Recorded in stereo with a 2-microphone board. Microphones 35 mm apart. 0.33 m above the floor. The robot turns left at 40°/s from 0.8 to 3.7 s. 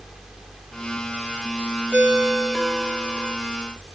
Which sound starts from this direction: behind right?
A ringtone, at 1.9 s.